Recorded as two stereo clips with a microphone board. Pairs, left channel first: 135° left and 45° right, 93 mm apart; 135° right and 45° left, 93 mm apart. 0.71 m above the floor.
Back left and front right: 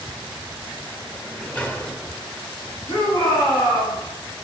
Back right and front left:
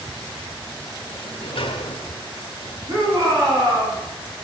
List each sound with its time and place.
1.1 s a sliding door: 150° right, 1.4 m
2.9 s a shout: 100° left, 6.5 m